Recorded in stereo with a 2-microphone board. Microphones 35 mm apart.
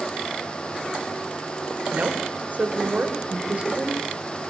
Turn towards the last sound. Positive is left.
turn(degrees=-35)  # may be behind; listen again after turning